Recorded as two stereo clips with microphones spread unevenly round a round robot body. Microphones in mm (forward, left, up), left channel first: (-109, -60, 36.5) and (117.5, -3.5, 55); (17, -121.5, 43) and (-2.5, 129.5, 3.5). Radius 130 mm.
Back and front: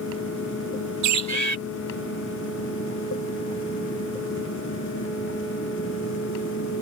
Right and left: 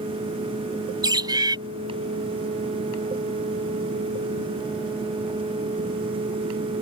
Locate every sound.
1.0 s a bird: 20° left